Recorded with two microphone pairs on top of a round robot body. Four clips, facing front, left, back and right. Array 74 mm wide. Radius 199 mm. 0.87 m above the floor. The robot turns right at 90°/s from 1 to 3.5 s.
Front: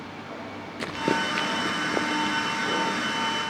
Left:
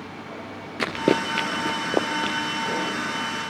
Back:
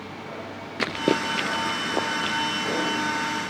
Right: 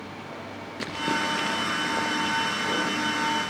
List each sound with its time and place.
0.8 s running footsteps: 145° left, 1.0 m; by 2.4 s 120° left, 1.9 m